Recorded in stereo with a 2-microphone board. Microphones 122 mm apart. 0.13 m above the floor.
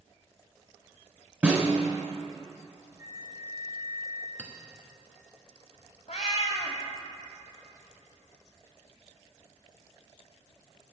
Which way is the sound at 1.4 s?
10° right (ahead or behind).